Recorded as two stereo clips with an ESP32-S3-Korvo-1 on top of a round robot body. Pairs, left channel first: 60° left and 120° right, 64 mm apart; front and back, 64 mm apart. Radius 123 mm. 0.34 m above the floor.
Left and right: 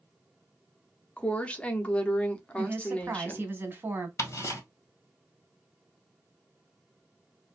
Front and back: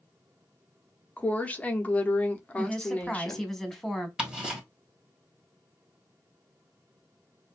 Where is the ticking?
105° left, 1.4 m.